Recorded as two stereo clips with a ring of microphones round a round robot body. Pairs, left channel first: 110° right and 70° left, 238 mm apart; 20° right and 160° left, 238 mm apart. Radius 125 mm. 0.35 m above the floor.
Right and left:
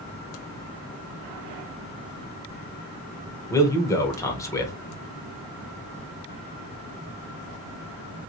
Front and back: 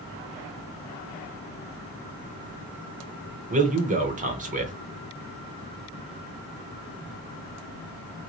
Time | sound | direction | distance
3.5 | a man speaking | straight behind | 0.9 m